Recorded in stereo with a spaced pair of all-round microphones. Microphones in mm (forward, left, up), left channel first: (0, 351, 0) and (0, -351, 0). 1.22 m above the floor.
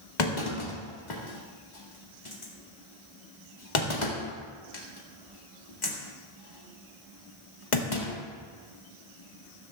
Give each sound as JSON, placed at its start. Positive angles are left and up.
{"t": 0.2, "sound": "a clunk", "side_deg": 85, "distance_m": 2.0}